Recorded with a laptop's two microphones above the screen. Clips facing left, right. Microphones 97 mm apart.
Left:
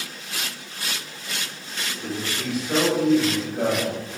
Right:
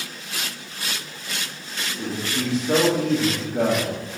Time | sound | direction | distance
2.0 | a man speaking | 65° right (ahead or behind) | 2 m